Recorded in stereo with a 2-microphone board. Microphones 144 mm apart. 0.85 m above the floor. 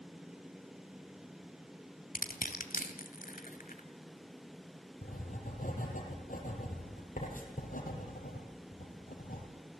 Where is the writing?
70° left (ahead or behind), 4 m.